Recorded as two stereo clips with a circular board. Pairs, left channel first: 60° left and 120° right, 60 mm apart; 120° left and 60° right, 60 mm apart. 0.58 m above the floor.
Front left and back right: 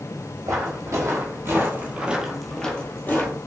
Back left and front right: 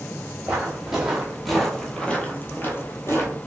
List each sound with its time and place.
0.5 s footsteps: 135° right, 1.2 m; by 3.4 s 95° left, 0.8 m